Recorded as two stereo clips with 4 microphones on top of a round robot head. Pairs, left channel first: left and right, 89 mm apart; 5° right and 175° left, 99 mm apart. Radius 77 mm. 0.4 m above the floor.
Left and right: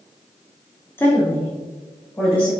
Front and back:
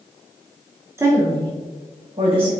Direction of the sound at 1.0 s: 135° left.